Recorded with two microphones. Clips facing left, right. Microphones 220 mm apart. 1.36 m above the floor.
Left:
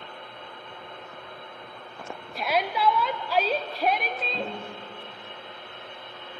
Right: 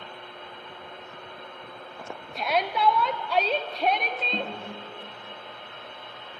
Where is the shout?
5° left (ahead or behind), 0.5 m.